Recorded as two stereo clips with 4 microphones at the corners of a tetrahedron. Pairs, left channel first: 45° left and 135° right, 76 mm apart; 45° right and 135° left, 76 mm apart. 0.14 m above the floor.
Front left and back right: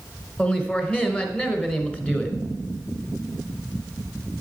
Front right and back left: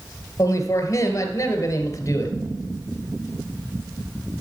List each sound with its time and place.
0.4 s a man speaking: 20° right, 1.7 m